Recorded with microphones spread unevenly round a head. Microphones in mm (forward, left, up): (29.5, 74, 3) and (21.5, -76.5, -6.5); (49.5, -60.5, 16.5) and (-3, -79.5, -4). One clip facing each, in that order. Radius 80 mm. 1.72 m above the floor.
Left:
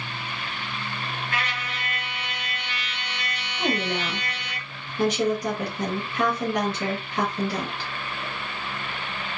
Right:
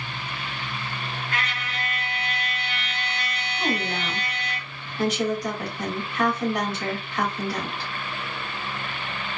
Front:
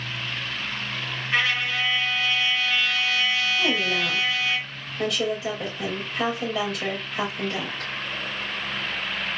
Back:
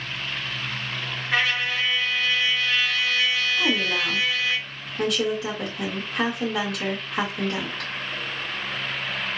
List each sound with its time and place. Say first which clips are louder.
1.3 s a trumpet: even, even; 150° left, 1.9 m
3.6 s a woman speaking: left 2 dB, even; 150° left, 2.5 m